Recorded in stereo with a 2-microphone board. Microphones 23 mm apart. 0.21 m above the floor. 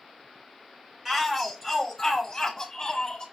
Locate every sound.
1.1 s a shout: 10° right (ahead or behind), 1.6 m; by 3.2 s 25° left (ahead or behind), 1.6 m